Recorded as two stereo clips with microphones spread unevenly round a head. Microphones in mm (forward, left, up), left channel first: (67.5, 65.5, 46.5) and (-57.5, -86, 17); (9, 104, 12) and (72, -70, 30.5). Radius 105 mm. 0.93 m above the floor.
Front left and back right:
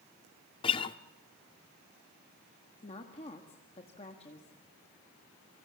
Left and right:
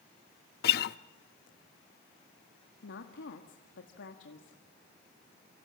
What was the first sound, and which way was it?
A guitar, 100° left.